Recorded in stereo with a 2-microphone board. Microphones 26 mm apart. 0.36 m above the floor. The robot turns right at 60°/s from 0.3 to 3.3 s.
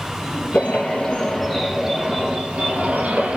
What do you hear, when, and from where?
0.5 s a bird: 110° left, 3.5 m; by 3.4 s 85° right, 3.5 m